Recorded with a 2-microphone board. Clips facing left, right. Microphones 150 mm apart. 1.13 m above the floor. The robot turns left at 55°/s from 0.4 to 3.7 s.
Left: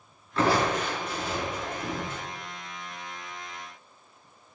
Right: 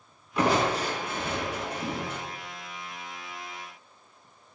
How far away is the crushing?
About 3 m.